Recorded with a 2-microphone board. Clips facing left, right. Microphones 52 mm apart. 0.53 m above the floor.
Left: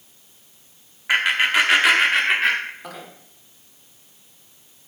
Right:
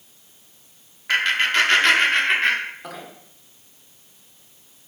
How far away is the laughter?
About 0.9 m.